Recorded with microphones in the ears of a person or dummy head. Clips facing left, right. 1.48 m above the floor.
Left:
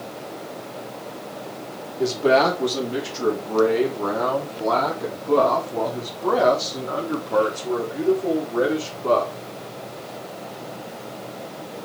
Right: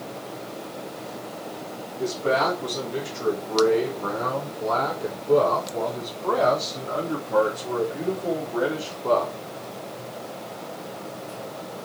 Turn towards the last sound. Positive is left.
turn(degrees=35)  # may be behind; listen again after turning